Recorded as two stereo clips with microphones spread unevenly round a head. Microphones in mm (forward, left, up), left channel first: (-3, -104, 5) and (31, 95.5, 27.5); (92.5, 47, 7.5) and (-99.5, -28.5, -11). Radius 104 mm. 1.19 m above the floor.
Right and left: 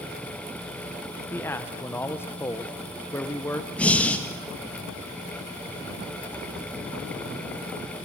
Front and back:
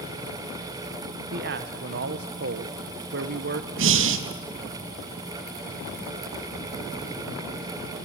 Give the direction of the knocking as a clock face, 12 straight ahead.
No knocking in this recording.